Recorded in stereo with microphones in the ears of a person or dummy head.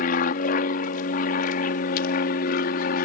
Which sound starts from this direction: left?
An aircraft, at 0.0 s.